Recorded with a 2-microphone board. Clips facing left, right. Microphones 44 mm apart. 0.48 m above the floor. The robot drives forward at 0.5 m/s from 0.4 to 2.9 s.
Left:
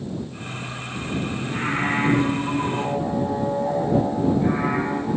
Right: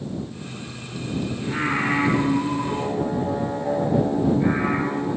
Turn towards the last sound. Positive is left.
turn(degrees=-30)  # may be behind; listen again after turning